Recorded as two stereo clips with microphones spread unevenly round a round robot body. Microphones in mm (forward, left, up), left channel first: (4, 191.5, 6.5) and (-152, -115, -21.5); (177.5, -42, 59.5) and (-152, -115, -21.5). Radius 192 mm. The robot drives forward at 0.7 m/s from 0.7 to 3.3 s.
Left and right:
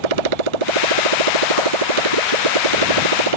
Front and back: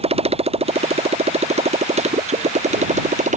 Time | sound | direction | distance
0.0 | a motorcycle | 95° right | ?